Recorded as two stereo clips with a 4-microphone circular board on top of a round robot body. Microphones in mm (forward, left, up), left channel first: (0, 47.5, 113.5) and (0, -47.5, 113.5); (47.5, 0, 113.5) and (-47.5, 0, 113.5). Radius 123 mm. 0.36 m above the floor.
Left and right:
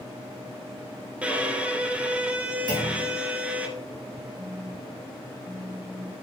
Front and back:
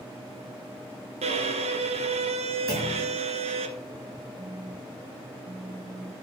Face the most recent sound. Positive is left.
turn(degrees=155)